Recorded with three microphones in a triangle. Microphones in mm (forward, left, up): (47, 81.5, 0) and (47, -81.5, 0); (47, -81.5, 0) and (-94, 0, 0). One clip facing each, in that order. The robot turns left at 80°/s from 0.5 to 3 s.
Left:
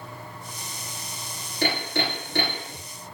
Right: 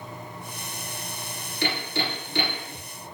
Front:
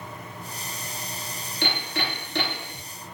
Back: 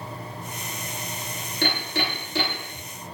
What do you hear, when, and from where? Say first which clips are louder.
1.6 s hammering: left 2 dB, back 2 dB; 125° left, 2.5 m; by 2.8 s 30° left, 2.5 m